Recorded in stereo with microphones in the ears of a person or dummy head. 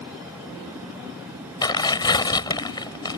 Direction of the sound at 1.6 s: 20° left (ahead or behind).